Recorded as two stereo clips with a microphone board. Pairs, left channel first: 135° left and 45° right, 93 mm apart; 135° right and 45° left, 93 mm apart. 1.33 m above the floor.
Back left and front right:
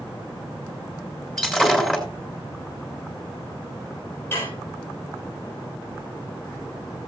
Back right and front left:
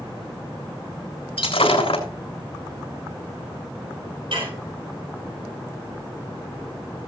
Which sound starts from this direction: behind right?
Breaking glass, at 1.4 s.